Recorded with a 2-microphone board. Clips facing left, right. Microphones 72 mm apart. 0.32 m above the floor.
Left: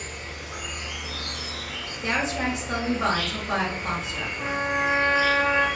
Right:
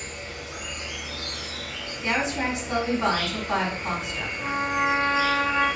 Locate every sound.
0.0 s an insect: 15° left (ahead or behind), 1.4 m
2.0 s a woman speaking: 45° left (ahead or behind), 1.9 m
4.4 s a trumpet: 25° left (ahead or behind), 0.6 m